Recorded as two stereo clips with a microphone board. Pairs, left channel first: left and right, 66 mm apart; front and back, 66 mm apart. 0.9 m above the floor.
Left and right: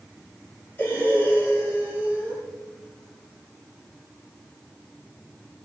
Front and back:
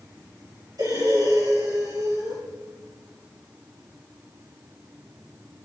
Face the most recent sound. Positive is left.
turn(degrees=155)